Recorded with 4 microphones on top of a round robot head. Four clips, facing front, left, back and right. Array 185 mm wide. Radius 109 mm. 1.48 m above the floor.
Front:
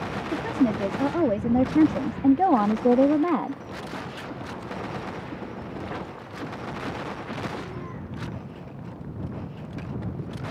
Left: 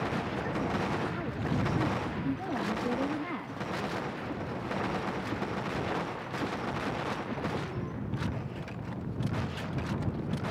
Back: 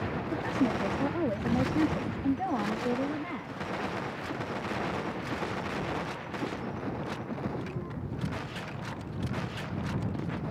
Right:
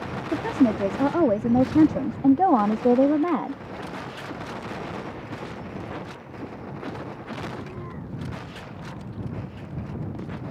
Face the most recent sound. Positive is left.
turn(degrees=-40)